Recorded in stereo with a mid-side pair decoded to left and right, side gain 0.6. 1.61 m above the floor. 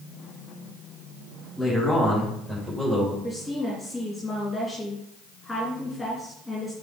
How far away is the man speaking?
About 4 m.